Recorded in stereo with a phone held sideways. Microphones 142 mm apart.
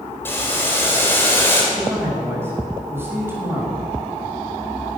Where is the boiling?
15° left (ahead or behind), 3.5 m.